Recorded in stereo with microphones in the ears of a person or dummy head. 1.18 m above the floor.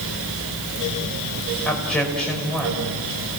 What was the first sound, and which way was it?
A man speaking, centre (ahead or behind).